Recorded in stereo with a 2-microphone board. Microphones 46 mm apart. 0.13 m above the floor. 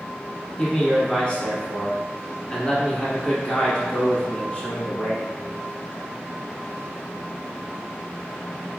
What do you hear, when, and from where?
0.6 s a man speaking: 20° left (ahead or behind), 1.1 m